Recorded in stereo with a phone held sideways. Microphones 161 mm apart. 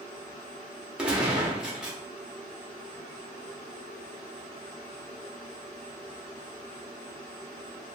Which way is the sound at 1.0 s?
5° right (ahead or behind).